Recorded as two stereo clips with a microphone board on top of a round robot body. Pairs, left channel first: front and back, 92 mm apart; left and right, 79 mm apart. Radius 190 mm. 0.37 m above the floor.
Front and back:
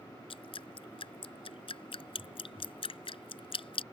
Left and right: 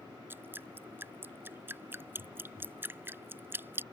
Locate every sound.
0.3 s dripping: 25° right